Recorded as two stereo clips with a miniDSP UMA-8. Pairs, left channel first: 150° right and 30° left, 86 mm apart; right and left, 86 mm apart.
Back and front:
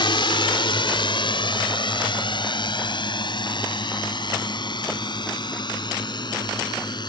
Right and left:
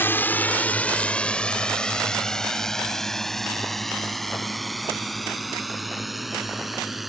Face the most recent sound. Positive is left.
turn(degrees=180)